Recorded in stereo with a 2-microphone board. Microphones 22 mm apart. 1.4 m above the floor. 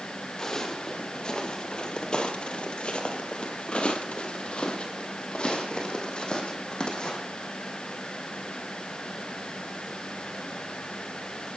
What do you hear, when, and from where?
0.4 s footsteps: 20° left (ahead or behind), 2.5 m; by 7.2 s 45° left (ahead or behind), 4 m